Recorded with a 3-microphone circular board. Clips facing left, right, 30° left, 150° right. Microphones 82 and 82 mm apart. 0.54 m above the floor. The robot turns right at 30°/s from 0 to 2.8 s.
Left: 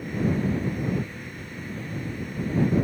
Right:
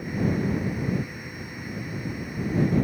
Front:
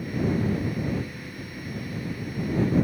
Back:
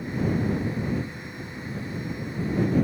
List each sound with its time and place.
Only background noise.